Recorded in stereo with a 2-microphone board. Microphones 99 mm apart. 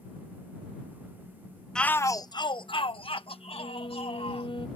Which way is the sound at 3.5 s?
60° left (ahead or behind).